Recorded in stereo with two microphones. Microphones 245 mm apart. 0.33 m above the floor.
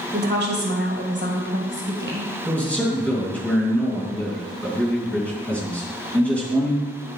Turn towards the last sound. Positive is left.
turn(degrees=5)  # may be behind; listen again after turning